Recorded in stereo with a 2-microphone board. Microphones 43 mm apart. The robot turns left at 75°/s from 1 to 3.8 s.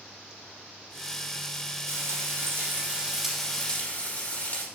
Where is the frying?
75° right, 4.5 m; by 4.7 s 145° left, 4.5 m.